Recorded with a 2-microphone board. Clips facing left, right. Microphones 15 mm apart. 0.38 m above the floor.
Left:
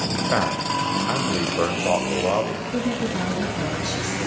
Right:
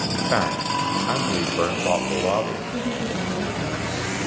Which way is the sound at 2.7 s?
70° left (ahead or behind).